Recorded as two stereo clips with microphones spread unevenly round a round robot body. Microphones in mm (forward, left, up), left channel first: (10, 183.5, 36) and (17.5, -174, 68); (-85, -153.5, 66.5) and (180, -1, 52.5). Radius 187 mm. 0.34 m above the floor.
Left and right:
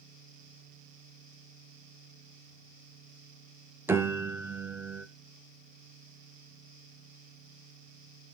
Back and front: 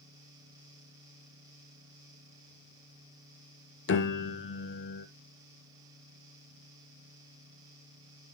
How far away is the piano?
About 0.7 m.